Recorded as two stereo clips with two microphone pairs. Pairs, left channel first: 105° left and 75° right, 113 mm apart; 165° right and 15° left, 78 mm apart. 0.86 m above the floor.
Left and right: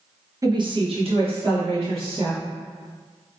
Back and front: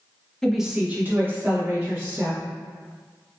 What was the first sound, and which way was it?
A woman speaking, 95° right.